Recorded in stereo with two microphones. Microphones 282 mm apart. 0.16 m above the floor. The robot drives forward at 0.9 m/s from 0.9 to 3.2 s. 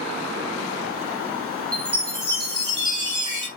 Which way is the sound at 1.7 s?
15° right (ahead or behind).